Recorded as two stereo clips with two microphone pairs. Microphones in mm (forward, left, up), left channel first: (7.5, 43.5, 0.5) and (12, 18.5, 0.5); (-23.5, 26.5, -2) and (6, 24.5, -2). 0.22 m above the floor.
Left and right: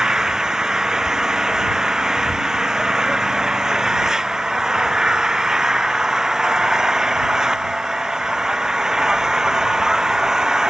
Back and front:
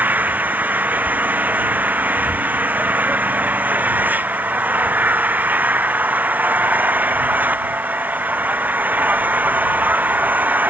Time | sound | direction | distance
0.0 | an engine running | 10° right | ?